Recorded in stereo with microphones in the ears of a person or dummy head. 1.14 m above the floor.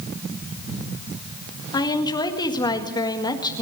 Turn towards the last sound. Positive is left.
turn(degrees=20)  # may be behind; listen again after turning